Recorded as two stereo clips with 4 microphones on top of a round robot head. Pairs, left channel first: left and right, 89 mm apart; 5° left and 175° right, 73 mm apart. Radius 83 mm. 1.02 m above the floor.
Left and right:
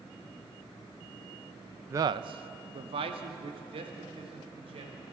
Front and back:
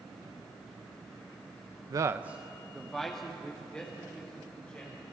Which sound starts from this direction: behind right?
A man speaking, at 1.9 s.